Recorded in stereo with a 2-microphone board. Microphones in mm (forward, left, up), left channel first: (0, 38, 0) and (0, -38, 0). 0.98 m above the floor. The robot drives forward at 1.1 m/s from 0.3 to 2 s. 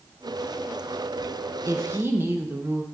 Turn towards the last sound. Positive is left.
turn(degrees=-30)  # may be behind; listen again after turning